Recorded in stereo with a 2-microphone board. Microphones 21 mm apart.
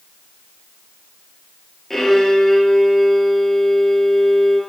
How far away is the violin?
About 1.6 m.